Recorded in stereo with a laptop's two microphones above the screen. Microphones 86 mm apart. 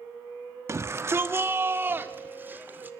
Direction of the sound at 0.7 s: 30° right (ahead or behind).